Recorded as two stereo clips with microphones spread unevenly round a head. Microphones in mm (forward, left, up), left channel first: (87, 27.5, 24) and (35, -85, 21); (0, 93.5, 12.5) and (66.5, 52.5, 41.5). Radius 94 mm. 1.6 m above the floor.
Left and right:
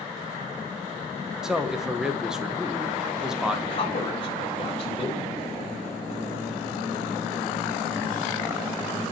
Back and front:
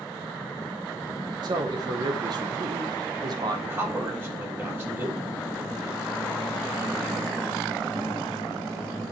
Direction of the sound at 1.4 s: 30° right.